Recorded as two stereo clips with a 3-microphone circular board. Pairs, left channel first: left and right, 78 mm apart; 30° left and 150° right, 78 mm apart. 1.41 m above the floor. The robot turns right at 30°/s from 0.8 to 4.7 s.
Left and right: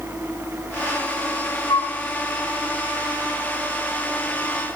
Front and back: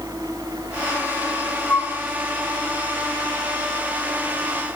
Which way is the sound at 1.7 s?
90° left.